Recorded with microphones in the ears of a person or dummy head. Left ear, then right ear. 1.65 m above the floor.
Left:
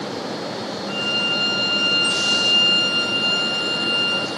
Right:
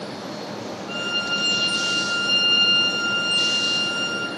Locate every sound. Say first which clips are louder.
0.9 s a violin: left 3 dB; 5° right (ahead or behind), 5 m